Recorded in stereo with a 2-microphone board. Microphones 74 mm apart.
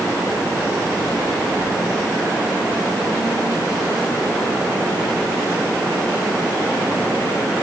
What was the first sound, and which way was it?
Only background noise.